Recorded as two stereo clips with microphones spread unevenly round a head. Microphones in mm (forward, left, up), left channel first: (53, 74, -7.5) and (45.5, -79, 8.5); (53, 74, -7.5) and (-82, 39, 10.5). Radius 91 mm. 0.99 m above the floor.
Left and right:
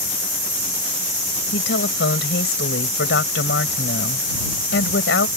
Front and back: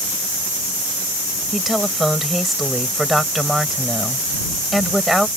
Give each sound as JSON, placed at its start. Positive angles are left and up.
{"t": 1.5, "sound": "a woman speaking", "azimuth_deg": 105}